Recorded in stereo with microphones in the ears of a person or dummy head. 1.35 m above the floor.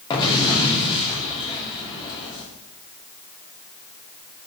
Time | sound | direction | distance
0.1 | an explosion | 25° left (ahead or behind) | 2.5 m